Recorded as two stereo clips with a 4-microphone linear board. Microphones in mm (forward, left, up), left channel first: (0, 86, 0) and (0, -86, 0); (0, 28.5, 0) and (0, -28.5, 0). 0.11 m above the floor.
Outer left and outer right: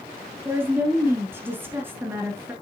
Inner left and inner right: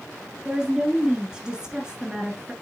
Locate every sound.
0.5 s a woman speaking: 10° right (ahead or behind), 1.2 m